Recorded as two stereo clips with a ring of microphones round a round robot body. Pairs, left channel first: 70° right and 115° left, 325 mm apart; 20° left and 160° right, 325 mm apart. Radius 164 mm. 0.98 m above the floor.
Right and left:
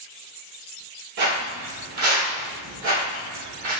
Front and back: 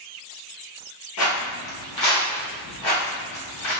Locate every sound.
1.2 s footsteps: 60° left, 1.6 m; by 3.7 s 45° left, 3 m